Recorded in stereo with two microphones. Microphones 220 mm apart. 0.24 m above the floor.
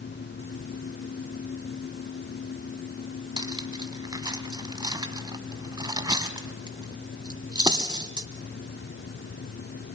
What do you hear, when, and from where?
3.4 s cutlery clinking: 20° right (ahead or behind), 1.2 m